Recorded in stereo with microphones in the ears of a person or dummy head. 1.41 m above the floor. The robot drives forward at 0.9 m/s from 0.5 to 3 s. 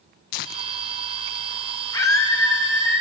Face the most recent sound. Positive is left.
turn(degrees=15)  # may be behind; listen again after turning